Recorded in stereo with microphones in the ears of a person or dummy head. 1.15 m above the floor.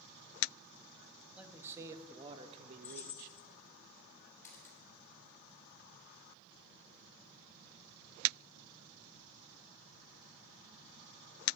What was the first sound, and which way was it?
A man speaking, 5° right (ahead or behind).